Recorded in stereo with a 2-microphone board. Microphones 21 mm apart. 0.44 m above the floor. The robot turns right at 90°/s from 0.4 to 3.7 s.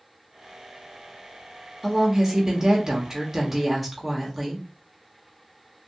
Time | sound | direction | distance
1.8 | a woman speaking | 160° right | 1.1 m